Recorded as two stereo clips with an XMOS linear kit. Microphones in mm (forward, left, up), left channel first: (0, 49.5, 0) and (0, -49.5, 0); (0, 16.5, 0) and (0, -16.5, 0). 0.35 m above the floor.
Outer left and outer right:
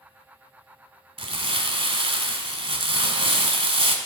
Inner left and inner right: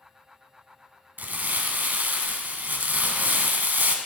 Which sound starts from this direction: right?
Crumpling, at 1.2 s.